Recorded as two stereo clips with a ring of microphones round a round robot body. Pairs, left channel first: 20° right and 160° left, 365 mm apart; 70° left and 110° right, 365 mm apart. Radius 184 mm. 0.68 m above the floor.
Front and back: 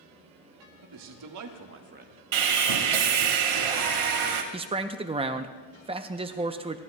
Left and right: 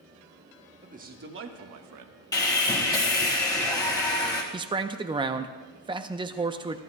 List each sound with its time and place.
0.8 s a man speaking: 175° left, 1.5 m; by 2.2 s 130° right, 1.1 m
2.3 s sawing: 150° left, 1.7 m
4.5 s a man speaking: 160° right, 0.6 m